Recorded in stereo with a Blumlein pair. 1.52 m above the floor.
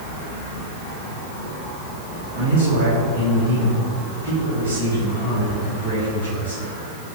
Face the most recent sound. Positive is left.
turn(degrees=-65)